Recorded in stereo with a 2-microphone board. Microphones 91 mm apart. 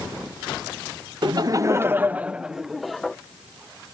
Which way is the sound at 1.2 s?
55° right (ahead or behind).